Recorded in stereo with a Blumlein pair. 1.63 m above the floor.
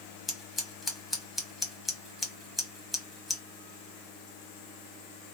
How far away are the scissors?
About 1.1 m.